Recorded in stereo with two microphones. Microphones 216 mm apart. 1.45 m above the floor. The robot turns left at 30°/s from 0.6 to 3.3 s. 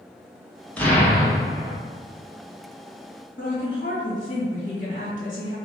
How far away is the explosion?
About 0.9 m.